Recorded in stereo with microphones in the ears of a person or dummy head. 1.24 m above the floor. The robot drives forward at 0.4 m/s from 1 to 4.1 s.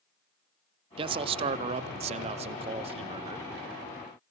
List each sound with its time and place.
1.0 s a man speaking: 25° right (ahead or behind), 0.8 m